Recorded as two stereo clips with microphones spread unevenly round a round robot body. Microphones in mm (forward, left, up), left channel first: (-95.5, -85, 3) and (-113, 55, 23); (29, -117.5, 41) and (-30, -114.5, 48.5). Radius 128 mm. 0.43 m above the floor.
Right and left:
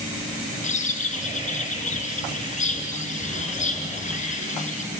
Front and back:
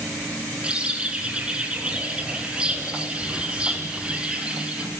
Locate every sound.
0.6 s a bird: 115° right, 7 m